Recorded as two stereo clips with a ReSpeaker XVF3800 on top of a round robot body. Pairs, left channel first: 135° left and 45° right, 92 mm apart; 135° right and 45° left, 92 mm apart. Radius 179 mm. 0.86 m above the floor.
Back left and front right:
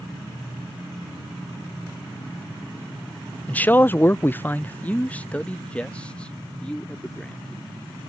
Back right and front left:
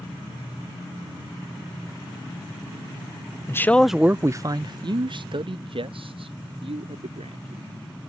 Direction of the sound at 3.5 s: 165° right.